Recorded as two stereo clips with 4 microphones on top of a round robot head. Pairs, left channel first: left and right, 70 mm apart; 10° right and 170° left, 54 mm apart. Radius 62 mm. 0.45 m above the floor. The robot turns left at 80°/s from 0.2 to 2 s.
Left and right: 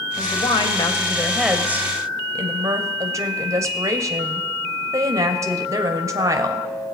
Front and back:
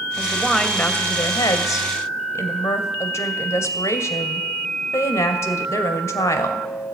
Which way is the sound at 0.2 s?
100° left.